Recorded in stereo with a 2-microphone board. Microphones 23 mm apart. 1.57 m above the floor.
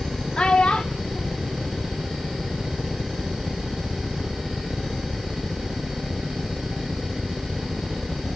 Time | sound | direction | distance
0.4 | a child speaking | 40° left (ahead or behind) | 0.5 m